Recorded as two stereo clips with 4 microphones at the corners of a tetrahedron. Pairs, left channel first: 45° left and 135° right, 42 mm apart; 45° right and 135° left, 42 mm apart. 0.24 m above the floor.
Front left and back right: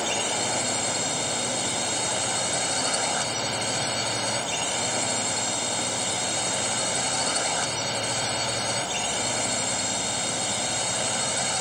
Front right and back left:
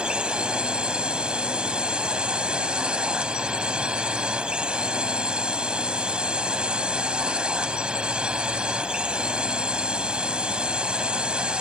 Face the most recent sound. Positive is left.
turn(degrees=145)